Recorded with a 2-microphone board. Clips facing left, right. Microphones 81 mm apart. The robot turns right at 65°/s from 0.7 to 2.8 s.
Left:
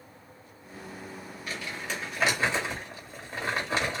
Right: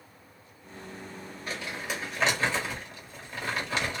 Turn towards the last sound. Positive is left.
turn(degrees=35)  # may be behind; listen again after turning